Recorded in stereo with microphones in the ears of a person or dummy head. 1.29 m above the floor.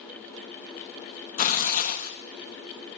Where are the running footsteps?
No running footsteps in this recording.